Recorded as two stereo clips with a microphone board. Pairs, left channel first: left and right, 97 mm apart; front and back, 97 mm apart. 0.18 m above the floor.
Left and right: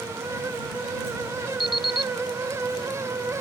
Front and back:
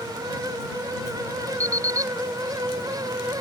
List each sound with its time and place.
1.6 s an alarm clock: 125° left